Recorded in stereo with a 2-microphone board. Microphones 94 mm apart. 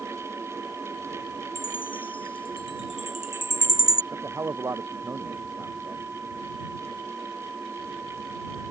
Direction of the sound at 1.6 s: 60° left (ahead or behind).